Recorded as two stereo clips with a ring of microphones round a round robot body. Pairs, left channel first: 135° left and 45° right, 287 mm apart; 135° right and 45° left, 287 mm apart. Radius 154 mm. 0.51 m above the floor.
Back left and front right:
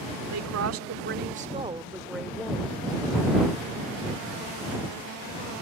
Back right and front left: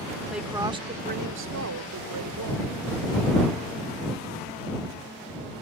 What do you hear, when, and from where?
0.3 s a woman speaking: 45° right; by 2.6 s 55° left